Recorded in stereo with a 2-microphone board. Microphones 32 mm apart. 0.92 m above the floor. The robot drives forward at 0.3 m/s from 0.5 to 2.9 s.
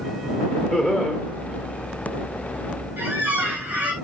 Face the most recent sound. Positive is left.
turn(degrees=-65)  # may be behind; listen again after turning